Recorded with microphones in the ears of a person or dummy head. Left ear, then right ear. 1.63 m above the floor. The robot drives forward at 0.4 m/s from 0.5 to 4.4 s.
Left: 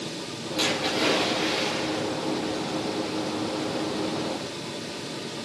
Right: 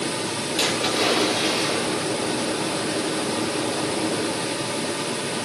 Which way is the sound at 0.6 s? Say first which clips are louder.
Right 2 dB; 15° right (ahead or behind).